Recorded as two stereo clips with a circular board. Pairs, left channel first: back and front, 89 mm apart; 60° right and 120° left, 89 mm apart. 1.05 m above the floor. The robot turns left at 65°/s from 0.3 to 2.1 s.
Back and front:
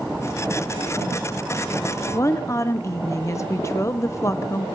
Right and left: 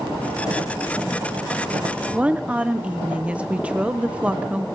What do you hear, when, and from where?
2.1 s a woman speaking: 175° right, 0.6 m